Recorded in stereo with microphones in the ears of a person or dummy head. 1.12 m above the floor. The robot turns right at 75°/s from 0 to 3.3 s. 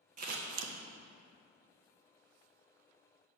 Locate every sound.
0.2 s scissors: 45° right (ahead or behind), 0.6 m; by 0.7 s 90° right, 0.6 m